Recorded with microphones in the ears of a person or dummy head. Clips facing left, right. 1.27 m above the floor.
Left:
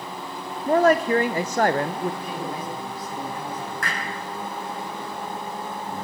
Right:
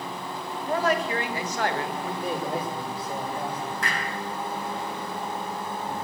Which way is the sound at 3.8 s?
40° left (ahead or behind).